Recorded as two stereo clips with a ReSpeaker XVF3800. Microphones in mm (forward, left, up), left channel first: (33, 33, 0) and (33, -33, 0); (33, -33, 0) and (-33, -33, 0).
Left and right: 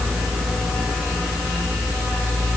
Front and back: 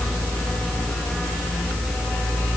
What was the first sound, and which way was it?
Only background noise.